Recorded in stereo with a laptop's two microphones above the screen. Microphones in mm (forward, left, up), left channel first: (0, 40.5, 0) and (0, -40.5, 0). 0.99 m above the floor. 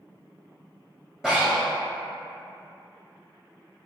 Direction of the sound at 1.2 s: 5° right (ahead or behind).